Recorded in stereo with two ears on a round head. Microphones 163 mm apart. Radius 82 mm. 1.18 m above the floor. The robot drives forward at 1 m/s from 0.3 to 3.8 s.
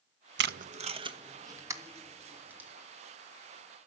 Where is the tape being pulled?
70° right (ahead or behind), 0.5 m; by 2.7 s 10° right (ahead or behind), 2.5 m.